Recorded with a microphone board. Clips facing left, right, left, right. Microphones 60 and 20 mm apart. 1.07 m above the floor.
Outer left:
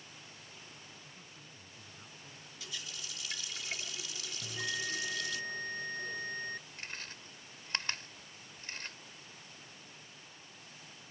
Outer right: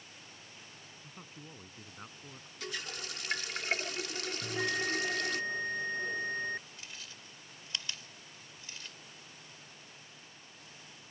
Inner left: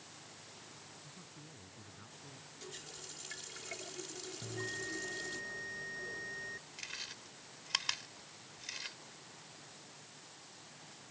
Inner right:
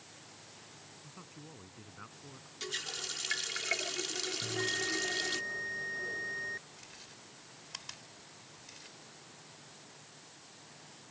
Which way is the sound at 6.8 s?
50° left (ahead or behind).